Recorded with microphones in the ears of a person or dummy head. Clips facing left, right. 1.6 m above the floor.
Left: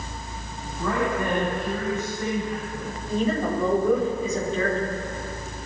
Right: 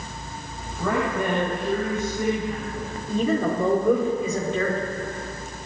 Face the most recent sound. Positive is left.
turn(degrees=-65)  # may be behind; listen again after turning